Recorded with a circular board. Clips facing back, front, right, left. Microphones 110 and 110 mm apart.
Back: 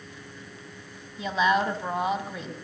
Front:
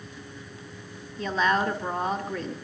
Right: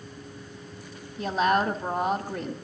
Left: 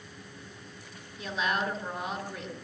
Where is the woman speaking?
110° right, 1.2 m.